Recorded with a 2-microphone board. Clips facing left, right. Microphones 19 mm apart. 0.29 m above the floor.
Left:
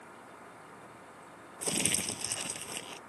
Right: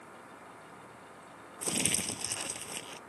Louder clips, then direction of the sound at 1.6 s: Even; 5° left (ahead or behind).